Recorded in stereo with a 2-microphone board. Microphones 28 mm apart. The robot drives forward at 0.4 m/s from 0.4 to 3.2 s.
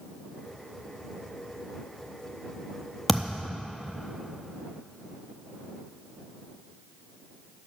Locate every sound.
3.1 s a thud: 5° left (ahead or behind), 0.7 m